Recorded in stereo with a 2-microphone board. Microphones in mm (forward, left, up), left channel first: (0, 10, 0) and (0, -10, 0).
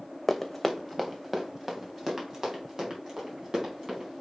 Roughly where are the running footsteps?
Centre.